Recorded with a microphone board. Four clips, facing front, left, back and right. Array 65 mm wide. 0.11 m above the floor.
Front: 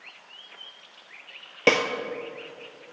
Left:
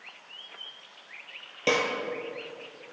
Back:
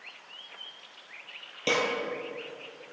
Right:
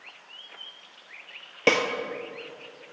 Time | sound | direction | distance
1.7 | a snare drum | 30° right | 0.9 m